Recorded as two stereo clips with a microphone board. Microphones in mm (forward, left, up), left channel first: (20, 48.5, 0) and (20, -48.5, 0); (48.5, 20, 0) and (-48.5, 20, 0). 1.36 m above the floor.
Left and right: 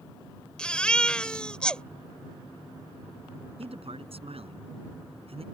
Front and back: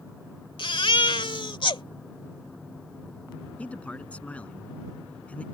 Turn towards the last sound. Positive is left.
turn(degrees=-75)